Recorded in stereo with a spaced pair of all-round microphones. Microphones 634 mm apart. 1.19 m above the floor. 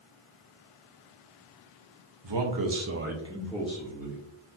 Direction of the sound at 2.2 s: 45° right (ahead or behind).